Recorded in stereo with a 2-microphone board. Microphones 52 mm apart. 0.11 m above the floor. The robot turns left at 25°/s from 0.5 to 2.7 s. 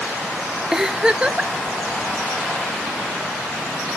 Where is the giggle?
10° right (ahead or behind), 0.7 m; by 1.5 s 25° right (ahead or behind), 0.7 m.